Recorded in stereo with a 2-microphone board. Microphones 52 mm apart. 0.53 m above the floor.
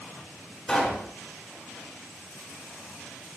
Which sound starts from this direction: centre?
A pop, at 0.7 s.